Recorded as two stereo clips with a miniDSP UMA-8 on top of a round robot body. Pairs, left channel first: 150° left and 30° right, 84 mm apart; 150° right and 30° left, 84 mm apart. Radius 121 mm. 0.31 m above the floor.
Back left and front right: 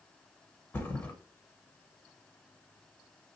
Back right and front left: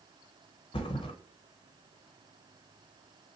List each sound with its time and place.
0.7 s a thud: 145° right, 0.8 m